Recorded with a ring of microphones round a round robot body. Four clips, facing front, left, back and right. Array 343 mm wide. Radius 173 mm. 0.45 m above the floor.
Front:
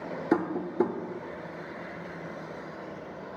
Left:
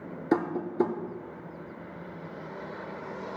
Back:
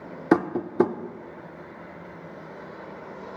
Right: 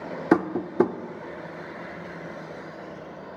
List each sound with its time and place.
0.3 s tapping: 135° right, 0.5 m